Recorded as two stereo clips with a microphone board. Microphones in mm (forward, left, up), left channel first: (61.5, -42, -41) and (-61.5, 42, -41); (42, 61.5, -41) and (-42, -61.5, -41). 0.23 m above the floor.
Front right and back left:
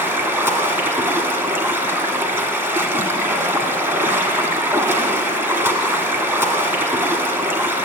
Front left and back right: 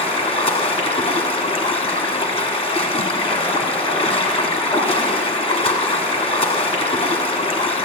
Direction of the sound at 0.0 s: 75° left.